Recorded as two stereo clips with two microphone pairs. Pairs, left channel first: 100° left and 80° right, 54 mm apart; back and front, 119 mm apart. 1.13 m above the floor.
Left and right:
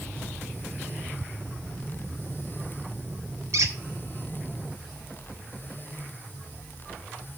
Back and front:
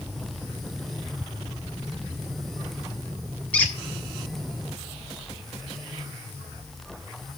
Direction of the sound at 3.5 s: 105° right.